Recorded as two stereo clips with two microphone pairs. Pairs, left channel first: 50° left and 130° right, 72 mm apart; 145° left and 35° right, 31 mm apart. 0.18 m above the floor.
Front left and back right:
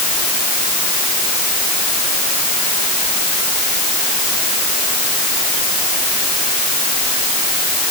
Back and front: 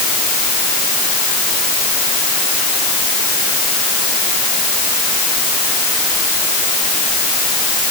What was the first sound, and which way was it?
Only background noise.